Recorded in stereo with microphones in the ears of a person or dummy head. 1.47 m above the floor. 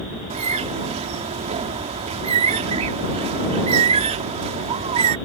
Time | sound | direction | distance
0.3 | a bird | 35° right (ahead or behind) | ?